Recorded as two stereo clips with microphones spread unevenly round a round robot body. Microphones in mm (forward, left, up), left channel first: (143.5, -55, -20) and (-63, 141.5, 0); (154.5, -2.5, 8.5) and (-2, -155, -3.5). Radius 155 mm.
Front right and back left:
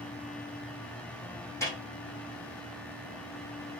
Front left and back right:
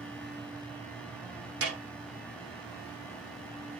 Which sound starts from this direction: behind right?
A snare drum, at 1.6 s.